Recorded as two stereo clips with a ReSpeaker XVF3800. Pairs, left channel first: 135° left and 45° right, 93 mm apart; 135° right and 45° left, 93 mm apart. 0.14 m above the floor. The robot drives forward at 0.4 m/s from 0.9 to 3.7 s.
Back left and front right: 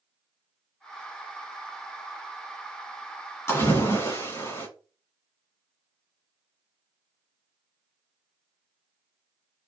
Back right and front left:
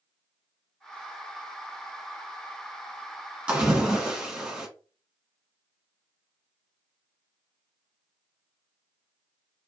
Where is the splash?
110° left, 1.2 m; by 4.7 s 120° left, 1.2 m.